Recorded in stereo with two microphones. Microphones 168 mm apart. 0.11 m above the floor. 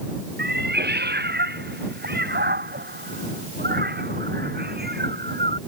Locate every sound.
0.4 s a cat meowing: 80° right; by 5.6 s 75° right (ahead or behind)